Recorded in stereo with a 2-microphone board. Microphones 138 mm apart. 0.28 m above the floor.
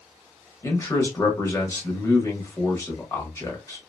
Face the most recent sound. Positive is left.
turn(degrees=20)  # may be behind; listen again after turning